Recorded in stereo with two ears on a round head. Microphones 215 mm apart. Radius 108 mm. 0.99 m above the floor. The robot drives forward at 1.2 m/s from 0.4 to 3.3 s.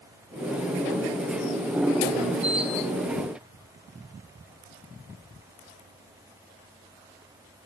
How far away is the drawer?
I don't hear a drawer.